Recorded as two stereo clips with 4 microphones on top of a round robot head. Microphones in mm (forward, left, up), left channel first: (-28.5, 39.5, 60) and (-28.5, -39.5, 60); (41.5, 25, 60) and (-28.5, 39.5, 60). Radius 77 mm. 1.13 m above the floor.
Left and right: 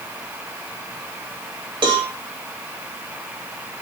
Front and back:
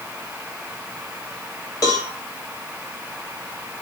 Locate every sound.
1.8 s a cowbell: 55° right, 2 m